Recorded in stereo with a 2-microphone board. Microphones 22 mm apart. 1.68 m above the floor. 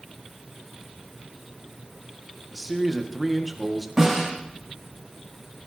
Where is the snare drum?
15° right (ahead or behind), 8.5 m.